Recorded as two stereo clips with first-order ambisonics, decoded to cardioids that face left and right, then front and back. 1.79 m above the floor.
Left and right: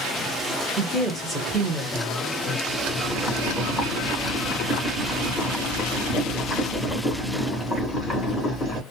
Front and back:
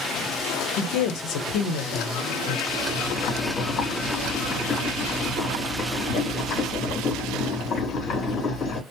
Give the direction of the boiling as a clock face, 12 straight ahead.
12 o'clock.